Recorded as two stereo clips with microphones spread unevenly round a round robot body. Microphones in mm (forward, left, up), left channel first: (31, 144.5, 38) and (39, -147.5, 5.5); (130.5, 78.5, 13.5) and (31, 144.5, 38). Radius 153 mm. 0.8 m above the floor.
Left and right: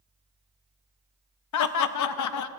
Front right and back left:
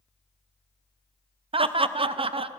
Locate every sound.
1.5 s laughter: 100° left, 0.6 m